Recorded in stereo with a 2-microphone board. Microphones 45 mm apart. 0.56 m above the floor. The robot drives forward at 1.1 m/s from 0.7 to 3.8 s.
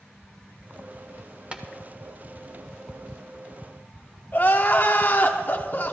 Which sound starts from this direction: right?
Tapping, at 1.5 s.